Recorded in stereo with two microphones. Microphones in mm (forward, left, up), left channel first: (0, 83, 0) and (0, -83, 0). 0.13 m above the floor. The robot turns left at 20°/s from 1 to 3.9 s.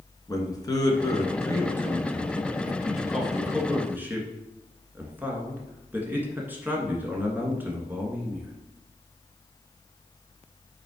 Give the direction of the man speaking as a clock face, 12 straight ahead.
11 o'clock.